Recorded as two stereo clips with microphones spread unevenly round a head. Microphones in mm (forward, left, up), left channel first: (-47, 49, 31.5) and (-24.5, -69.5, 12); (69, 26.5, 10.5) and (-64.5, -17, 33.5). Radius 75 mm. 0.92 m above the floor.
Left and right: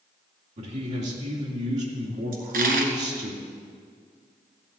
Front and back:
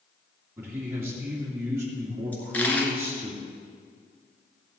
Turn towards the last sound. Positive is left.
turn(degrees=-65)